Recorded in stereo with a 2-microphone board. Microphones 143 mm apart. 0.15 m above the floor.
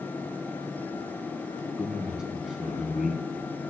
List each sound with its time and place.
1.8 s a man speaking: 5° right (ahead or behind), 1.2 m